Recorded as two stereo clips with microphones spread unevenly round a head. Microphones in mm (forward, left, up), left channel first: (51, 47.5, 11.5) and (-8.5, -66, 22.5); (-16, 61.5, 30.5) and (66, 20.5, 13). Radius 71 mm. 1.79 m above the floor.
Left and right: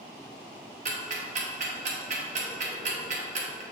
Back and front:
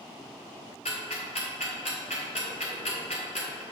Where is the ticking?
160° right, 1.1 m.